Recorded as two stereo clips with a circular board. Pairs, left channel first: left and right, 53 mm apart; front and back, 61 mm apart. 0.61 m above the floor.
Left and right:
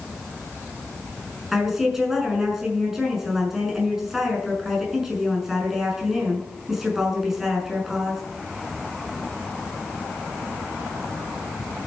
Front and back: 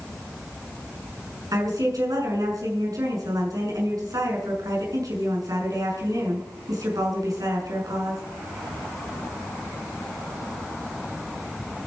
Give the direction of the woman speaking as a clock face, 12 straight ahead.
6 o'clock.